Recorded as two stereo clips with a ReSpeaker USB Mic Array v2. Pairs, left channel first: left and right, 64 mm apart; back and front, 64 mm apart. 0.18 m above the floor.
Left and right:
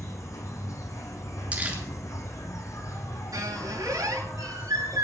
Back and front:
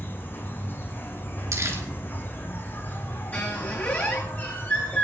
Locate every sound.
0.0 s an insect: 125° left, 1.9 m
1.5 s crumpling: 30° right, 2.5 m
3.3 s a squeak: 115° right, 7.5 m